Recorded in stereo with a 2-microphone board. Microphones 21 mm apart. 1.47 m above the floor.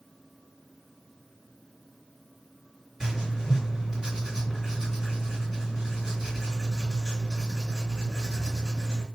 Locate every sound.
3.0 s writing: 20° right (ahead or behind), 2.5 m